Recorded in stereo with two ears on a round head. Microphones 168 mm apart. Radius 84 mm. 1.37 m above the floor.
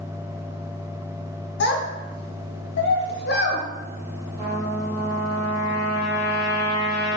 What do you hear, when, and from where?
1.6 s a child speaking: 60° left (ahead or behind), 0.7 m
4.4 s a trumpet: 55° right (ahead or behind), 1.5 m